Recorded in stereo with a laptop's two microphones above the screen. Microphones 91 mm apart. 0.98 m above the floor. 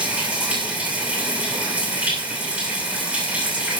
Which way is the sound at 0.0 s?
15° right (ahead or behind).